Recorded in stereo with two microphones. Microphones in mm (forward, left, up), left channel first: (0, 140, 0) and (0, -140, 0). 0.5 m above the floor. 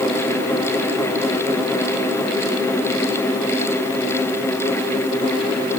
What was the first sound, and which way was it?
Only background noise.